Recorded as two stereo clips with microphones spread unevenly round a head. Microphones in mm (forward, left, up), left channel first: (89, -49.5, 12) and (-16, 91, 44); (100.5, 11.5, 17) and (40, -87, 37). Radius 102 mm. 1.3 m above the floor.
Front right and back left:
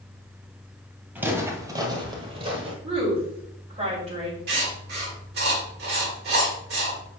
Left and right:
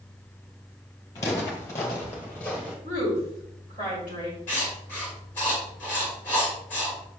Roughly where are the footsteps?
Left.